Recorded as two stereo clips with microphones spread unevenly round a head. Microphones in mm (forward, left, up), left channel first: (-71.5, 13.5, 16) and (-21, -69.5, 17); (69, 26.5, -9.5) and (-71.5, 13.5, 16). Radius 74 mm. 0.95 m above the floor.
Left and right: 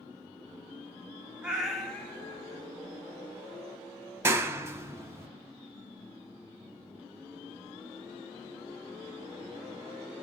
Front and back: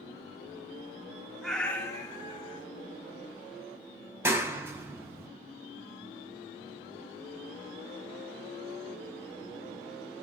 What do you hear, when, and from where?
1.4 s a cat meowing: 120° right, 0.5 m; by 2.6 s 60° left, 0.8 m
4.2 s a clap: 95° right, 0.5 m